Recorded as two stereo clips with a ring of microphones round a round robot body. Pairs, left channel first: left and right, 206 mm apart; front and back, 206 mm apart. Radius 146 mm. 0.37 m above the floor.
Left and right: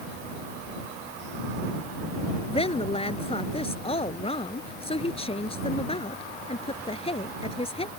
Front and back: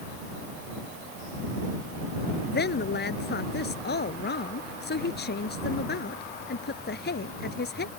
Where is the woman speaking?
30° left.